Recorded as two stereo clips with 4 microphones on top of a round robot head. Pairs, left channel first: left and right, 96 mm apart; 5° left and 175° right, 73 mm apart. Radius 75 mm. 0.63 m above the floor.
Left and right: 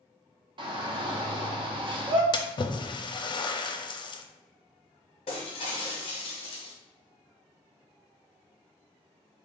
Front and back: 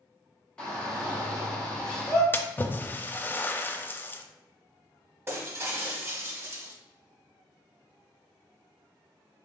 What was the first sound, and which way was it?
A shout, 75° right.